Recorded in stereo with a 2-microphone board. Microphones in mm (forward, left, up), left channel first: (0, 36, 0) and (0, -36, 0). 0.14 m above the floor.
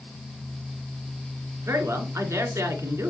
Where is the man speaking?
45° right (ahead or behind), 1.7 m.